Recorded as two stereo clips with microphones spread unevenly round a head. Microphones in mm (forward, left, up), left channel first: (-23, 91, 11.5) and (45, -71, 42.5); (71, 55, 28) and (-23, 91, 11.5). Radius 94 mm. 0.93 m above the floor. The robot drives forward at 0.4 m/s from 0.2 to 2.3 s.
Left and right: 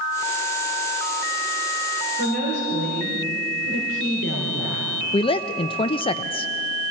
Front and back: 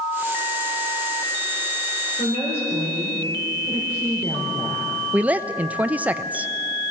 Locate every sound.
2.2 s a woman speaking: 80° right, 4 m
5.1 s a woman speaking: 105° left, 0.5 m